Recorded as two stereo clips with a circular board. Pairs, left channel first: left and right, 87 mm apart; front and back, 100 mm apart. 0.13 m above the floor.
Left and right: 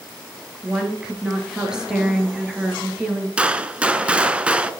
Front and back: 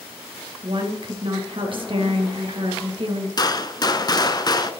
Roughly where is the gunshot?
Ahead.